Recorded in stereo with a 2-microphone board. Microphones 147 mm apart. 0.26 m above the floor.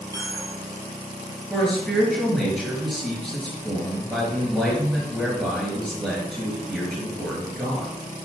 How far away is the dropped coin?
About 3.5 m.